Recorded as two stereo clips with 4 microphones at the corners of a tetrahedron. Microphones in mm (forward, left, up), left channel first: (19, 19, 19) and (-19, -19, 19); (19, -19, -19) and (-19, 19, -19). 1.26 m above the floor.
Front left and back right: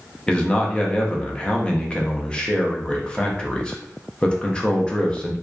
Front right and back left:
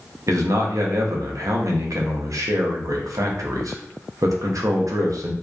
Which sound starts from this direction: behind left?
A man speaking, at 0.3 s.